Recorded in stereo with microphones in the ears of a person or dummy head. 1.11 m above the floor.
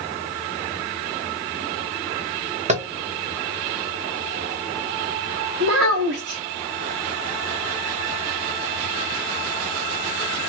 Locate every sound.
2.7 s tapping: 35° right (ahead or behind), 0.6 m
5.6 s a child speaking: 75° right (ahead or behind), 1.1 m